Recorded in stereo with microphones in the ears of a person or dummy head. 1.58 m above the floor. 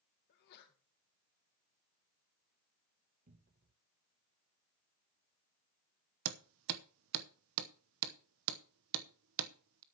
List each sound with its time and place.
0.3 s a sneeze: 55° left (ahead or behind), 1.9 m
3.3 s a cupboard door: 45° right (ahead or behind), 0.9 m
6.2 s hammering: 70° right (ahead or behind), 0.9 m